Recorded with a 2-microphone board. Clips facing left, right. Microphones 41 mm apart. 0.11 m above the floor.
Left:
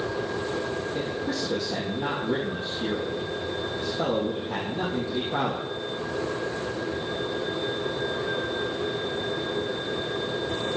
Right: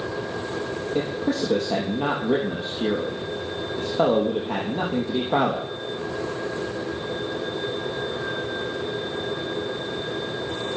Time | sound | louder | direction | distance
0.9 | a man speaking | right 4 dB | 65° right (ahead or behind) | 4 m